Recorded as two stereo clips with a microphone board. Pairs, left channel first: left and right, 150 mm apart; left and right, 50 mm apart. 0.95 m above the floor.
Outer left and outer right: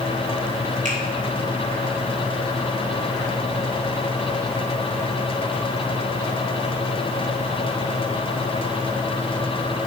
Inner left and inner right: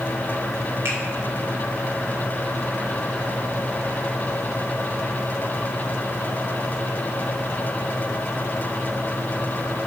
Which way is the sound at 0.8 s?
55° right (ahead or behind).